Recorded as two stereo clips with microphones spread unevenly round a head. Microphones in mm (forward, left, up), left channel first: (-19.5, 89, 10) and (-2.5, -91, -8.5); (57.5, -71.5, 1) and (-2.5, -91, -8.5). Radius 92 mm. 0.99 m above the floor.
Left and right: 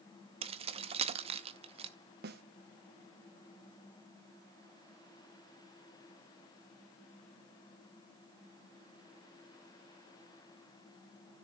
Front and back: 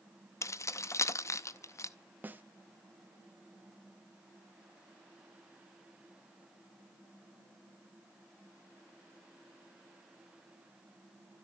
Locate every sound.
0.4 s keys jangling: 25° right, 0.6 m
2.2 s a snare drum: 105° right, 1.1 m